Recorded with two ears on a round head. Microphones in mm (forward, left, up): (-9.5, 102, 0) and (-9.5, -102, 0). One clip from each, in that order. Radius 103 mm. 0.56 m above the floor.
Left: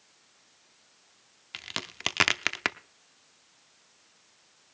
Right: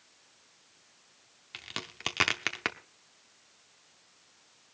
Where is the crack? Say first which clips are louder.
Left 4 dB; 15° left (ahead or behind), 0.6 m.